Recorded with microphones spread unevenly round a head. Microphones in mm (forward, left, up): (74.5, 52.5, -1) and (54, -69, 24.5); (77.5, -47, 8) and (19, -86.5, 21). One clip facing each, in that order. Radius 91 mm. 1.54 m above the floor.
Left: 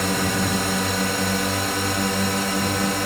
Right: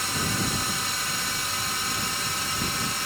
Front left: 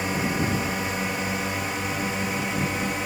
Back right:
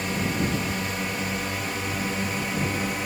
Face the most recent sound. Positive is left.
turn(degrees=120)